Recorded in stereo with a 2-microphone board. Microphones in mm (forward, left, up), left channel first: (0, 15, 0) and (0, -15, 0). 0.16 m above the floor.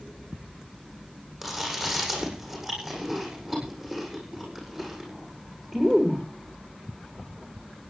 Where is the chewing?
10° right (ahead or behind), 7.5 m.